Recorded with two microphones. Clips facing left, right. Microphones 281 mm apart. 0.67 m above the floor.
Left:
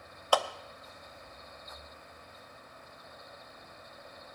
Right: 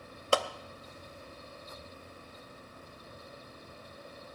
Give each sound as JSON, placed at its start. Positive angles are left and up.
{"t": 0.3, "sound": "a clap", "side_deg": -25, "distance_m": 0.6}